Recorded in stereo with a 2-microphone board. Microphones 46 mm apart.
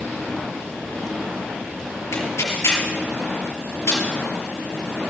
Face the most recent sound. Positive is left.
turn(degrees=90)